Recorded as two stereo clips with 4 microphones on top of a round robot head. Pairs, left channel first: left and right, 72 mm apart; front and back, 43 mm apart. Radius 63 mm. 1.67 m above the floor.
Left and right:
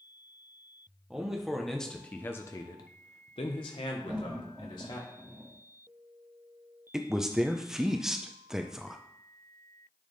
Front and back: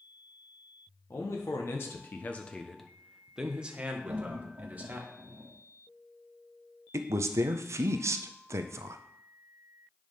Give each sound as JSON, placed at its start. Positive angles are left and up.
{"t": 1.1, "sound": "a man speaking", "azimuth_deg": -10, "distance_m": 1.0}
{"t": 4.1, "sound": "laughter", "azimuth_deg": -160, "distance_m": 1.1}
{"t": 6.9, "sound": "a woman speaking", "azimuth_deg": -175, "distance_m": 0.5}